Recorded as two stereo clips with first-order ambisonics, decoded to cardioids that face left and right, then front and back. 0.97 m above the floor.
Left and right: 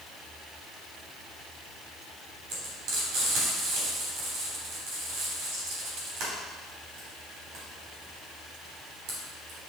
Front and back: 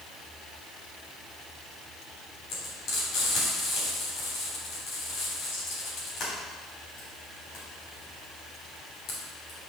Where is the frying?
55° right, 3.5 m.